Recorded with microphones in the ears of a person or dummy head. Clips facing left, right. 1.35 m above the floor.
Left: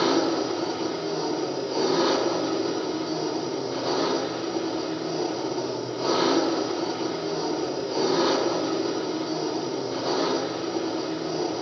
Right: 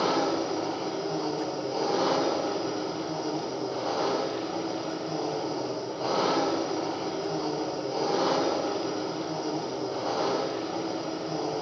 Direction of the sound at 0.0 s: 25° left (ahead or behind).